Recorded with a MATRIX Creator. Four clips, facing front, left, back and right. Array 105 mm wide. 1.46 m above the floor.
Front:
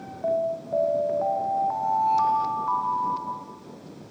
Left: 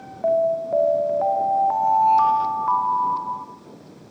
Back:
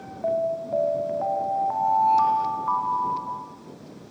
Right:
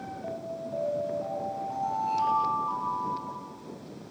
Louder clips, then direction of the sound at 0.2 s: Left 19 dB, back 1 dB; 95° left.